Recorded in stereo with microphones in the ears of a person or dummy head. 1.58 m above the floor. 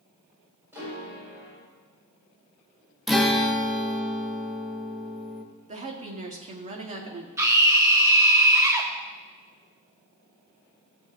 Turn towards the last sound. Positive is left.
turn(degrees=-15)  # may be behind; listen again after turning